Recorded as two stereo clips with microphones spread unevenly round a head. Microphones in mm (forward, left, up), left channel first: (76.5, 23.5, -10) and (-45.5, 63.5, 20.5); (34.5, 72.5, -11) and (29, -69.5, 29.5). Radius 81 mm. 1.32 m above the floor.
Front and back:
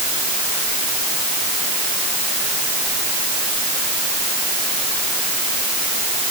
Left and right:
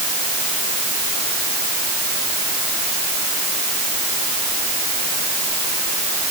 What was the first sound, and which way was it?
Only background noise.